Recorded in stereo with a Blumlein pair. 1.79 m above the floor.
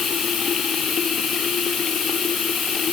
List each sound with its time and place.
0.0 s running water: 20° left